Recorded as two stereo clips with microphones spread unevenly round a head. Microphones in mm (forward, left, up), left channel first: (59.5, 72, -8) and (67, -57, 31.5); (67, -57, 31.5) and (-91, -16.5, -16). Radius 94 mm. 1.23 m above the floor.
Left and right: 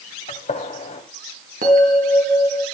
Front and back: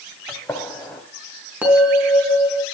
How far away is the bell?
About 5 m.